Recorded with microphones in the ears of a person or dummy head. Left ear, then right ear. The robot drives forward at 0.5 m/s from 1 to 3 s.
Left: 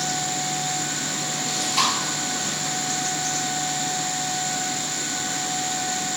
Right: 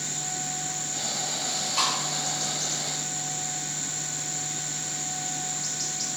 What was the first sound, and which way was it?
Chewing, 20° left (ahead or behind).